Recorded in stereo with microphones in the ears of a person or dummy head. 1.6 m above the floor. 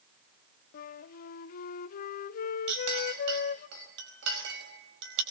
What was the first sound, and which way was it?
A flute, 45° left (ahead or behind).